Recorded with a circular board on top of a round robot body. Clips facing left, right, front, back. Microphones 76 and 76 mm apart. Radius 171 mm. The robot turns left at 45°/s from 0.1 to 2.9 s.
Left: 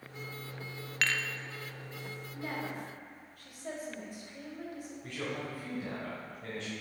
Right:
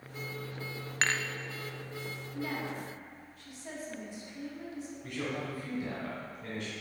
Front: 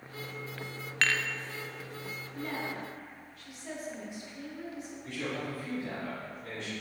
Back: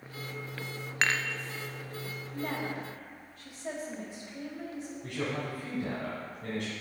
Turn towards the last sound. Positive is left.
turn(degrees=170)